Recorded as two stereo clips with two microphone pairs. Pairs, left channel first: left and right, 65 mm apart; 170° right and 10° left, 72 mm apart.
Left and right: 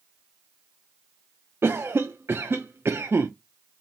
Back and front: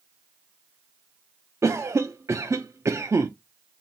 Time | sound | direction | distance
1.6 | a cough | 35° right | 0.6 m